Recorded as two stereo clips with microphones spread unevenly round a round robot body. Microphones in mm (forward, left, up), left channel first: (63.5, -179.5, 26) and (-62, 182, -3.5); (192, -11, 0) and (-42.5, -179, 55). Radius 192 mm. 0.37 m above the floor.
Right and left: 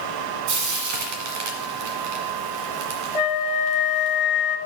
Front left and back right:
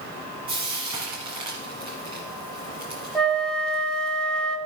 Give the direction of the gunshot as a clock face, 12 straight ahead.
No gunshot in this recording.